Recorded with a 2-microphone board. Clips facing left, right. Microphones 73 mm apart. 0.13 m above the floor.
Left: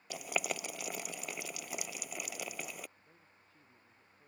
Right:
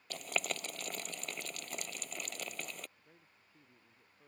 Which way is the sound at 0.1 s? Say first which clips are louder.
Left 2 dB; 10° left (ahead or behind).